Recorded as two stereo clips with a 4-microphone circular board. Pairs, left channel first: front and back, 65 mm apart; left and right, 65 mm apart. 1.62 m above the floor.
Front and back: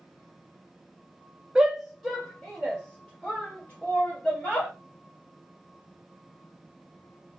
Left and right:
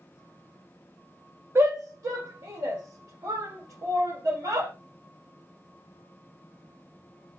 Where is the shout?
105° right, 0.6 m; by 4.7 s 65° right, 2.5 m.